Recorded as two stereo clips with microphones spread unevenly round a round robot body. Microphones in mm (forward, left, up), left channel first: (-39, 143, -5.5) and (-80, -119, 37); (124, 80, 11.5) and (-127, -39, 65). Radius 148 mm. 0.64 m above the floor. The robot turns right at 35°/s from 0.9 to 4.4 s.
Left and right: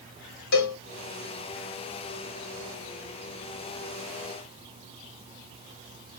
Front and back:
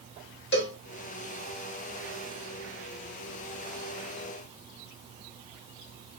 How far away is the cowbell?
About 1.5 m.